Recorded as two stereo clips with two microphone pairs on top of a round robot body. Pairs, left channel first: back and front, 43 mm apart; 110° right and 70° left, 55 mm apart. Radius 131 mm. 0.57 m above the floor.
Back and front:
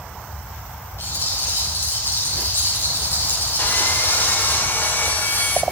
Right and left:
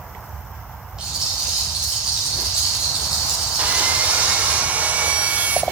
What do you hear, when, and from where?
1.0 s a rattle: 150° left, 6.5 m
3.6 s sawing: 135° left, 1.6 m